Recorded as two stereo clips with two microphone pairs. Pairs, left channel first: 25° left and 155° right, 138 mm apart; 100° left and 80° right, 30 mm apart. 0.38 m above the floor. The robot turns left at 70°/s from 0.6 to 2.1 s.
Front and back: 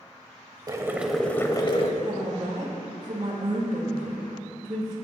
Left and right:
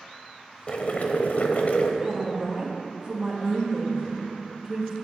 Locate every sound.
0.7 s boiling: 150° left, 0.9 m; by 1.9 s 60° left, 0.9 m
2.0 s a woman speaking: 130° right, 1.8 m; by 5.0 s 135° right, 1.8 m